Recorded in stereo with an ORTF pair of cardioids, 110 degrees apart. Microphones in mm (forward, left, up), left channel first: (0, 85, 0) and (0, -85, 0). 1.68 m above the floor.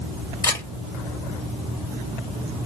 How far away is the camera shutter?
About 2.5 m.